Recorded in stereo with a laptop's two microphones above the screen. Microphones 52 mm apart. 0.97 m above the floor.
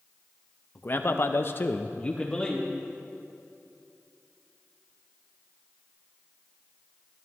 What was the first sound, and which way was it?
A man speaking, 35° left (ahead or behind).